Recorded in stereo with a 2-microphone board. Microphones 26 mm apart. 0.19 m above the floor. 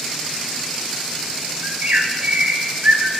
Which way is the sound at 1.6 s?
65° right (ahead or behind).